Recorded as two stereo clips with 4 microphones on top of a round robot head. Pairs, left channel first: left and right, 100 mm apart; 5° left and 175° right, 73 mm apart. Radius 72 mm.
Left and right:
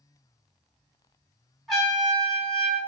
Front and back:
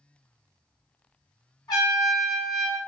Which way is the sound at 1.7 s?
Straight ahead.